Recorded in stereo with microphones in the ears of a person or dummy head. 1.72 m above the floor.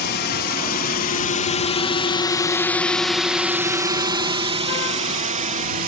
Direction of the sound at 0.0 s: 60° left (ahead or behind).